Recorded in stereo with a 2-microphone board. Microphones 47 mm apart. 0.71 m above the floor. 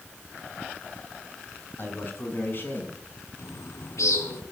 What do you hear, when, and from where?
1.8 s a man speaking: 45° left (ahead or behind), 6.5 m; by 3.0 s 40° left (ahead or behind), 6 m
3.4 s a bird: 85° left, 3 m